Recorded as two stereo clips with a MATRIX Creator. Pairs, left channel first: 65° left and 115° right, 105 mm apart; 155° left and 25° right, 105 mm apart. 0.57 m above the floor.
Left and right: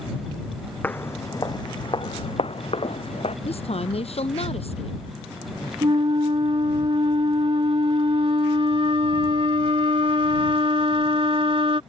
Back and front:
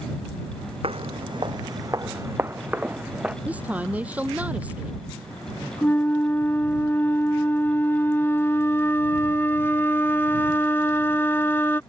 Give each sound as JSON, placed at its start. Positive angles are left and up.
{"t": 0.8, "sound": "footsteps", "azimuth_deg": -5}
{"t": 3.5, "sound": "a woman speaking", "azimuth_deg": 55}
{"t": 5.8, "sound": "a flute", "azimuth_deg": -135}